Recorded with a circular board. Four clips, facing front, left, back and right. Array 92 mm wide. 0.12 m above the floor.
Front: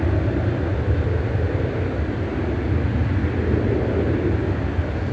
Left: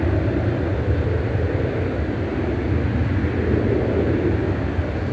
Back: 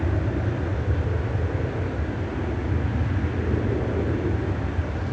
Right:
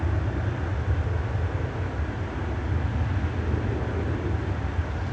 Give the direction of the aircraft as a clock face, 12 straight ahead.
10 o'clock.